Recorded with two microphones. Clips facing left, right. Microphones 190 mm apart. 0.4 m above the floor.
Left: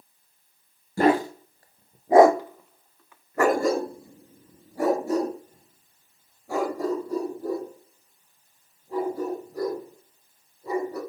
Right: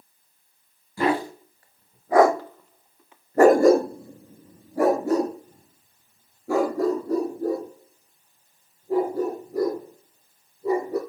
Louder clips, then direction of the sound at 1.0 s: Left 3 dB; 45° left (ahead or behind).